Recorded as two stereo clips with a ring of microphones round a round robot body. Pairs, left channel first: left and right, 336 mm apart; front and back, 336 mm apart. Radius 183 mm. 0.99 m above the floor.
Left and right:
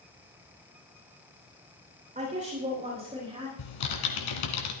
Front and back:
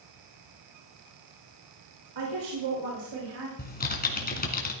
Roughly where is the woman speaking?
Behind.